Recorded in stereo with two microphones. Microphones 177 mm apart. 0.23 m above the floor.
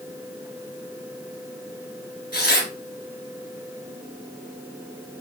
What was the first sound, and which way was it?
Tearing paper, 65° left (ahead or behind).